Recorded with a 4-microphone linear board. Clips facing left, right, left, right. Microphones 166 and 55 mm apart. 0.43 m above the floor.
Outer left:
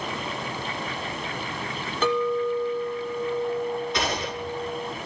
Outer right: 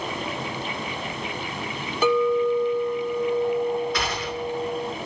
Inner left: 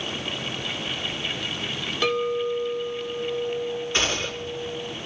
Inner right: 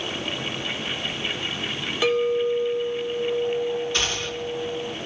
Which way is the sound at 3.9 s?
25° left (ahead or behind).